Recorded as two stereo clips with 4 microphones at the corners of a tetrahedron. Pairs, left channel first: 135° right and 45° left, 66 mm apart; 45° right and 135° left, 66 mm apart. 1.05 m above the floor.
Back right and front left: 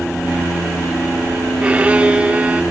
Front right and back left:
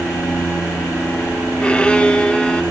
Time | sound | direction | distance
1.6 | a violin | 10° left | 0.6 m